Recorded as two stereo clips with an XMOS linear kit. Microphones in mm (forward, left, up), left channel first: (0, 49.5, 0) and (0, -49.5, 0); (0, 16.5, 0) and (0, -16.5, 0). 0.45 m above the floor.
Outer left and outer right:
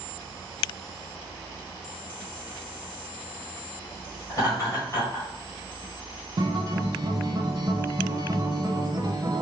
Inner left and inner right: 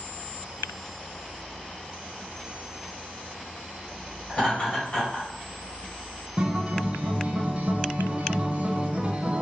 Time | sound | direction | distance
4.3 | laughter | 35° left (ahead or behind) | 2.5 m
6.4 | a guitar | 40° right (ahead or behind) | 0.8 m